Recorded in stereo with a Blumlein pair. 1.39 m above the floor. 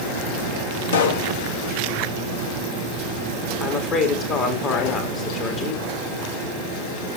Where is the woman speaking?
30° left, 2.5 m.